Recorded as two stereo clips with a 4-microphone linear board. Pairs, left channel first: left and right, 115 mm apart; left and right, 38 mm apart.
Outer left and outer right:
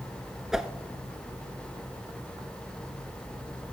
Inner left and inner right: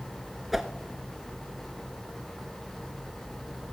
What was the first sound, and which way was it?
A whoosh, 5° right (ahead or behind).